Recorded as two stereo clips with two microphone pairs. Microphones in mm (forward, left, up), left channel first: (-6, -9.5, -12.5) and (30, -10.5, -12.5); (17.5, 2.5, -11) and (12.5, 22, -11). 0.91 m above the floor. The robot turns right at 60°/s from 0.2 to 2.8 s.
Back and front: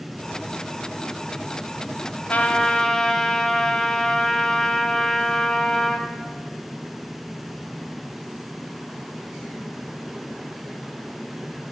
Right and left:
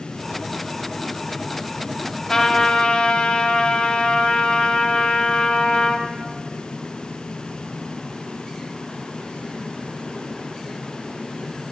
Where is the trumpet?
130° right, 1.2 m; by 6.1 s 100° right, 1.2 m.